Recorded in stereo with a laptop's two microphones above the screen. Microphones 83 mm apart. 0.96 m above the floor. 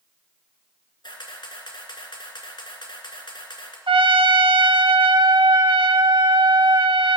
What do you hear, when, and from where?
1.0 s a camera shutter: 65° left (ahead or behind), 2.5 m
3.9 s a trumpet: 90° right, 0.7 m